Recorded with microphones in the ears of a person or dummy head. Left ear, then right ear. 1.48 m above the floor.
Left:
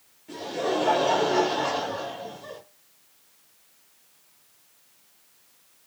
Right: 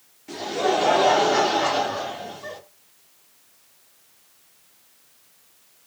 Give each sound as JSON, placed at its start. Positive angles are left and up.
{"t": 0.3, "sound": "laughter", "side_deg": -55, "distance_m": 1.3}